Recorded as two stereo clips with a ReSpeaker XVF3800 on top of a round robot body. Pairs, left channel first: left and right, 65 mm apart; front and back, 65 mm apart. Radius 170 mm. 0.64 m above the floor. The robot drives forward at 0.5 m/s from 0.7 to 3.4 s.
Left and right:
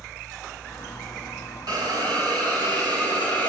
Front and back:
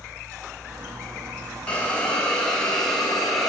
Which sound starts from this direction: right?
A hiss, at 1.7 s.